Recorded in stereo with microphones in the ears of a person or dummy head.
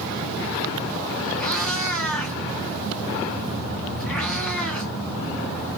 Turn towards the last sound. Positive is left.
turn(degrees=15)  # may be behind; listen again after turning